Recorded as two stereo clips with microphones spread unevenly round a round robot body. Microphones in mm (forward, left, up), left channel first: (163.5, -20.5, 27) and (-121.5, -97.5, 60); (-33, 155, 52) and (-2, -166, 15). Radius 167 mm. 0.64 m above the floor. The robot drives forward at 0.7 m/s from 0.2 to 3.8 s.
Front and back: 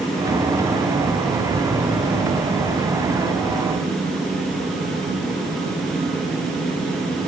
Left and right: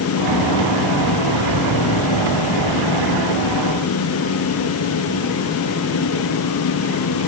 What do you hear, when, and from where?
Only background noise.